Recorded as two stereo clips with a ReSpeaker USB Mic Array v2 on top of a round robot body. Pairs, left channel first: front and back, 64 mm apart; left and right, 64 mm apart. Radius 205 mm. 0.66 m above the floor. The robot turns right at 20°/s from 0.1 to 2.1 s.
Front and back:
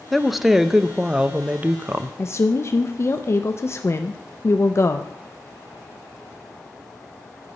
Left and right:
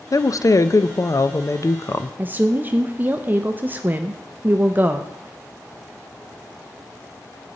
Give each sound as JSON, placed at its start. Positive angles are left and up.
{"t": 0.1, "sound": "a woman speaking", "azimuth_deg": 85, "distance_m": 0.7}
{"t": 2.2, "sound": "a woman speaking", "azimuth_deg": -35, "distance_m": 0.7}